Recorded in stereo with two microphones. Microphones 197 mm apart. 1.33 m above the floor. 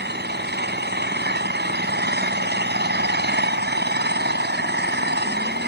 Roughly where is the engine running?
Right.